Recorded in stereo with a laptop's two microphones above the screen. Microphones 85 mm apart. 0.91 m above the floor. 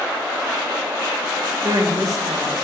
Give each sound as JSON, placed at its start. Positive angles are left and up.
{"t": 1.6, "sound": "a woman speaking", "side_deg": -40, "distance_m": 1.1}